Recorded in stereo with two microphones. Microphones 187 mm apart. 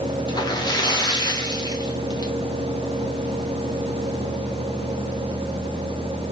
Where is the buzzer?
I don't hear a buzzer.